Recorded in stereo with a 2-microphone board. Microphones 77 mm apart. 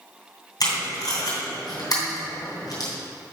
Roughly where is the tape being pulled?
Left.